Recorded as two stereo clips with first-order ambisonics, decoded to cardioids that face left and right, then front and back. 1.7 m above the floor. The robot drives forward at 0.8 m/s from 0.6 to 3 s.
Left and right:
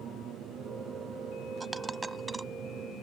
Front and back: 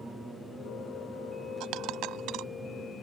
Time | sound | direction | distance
0.0 | an aircraft | 100° right | ?
1.6 | a dropped coin | 165° right | ?